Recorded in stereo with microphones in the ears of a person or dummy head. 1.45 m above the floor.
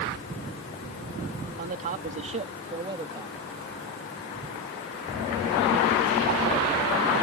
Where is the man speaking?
45° right (ahead or behind); by 3.4 s 20° right (ahead or behind).